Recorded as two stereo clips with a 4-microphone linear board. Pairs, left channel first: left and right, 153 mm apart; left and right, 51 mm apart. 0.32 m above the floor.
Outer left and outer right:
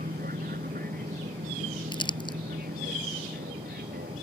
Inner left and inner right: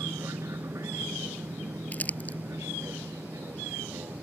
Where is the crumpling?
30° left (ahead or behind).